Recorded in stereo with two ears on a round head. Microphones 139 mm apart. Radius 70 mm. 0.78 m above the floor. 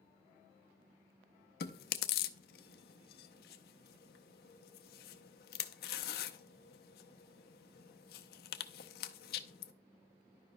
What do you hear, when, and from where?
1.6 s chewing: 65° left (ahead or behind), 0.5 m